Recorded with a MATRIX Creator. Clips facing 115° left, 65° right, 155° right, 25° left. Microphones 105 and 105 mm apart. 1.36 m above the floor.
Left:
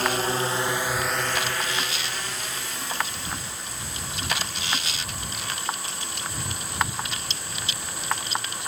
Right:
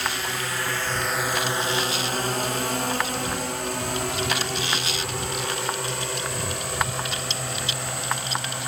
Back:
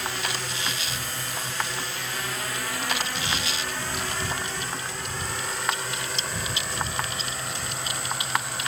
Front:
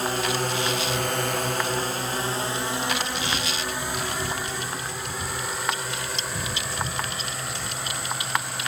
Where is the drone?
70° left; by 8.7 s 65° right.